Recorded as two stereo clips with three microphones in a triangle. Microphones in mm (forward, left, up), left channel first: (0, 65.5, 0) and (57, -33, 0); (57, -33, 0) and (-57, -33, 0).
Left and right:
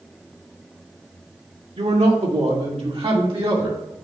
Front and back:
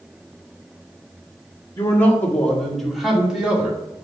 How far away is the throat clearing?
I don't hear throat clearing.